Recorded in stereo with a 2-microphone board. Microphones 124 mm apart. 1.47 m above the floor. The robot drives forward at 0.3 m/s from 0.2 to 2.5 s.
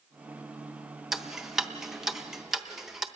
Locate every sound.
1.1 s ticking: 5° right (ahead or behind), 0.7 m